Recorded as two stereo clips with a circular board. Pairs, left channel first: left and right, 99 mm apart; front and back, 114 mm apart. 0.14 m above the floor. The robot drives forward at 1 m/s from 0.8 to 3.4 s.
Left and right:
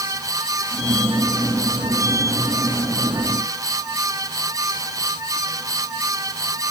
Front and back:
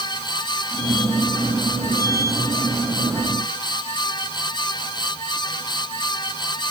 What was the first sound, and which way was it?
Only background noise.